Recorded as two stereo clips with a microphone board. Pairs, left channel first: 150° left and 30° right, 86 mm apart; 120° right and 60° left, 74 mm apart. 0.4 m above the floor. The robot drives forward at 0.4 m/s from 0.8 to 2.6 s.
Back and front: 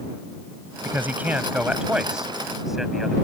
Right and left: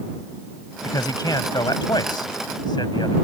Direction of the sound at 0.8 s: 95° right.